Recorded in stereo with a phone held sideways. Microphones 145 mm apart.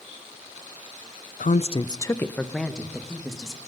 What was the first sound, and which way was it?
A woman speaking, 70° left (ahead or behind).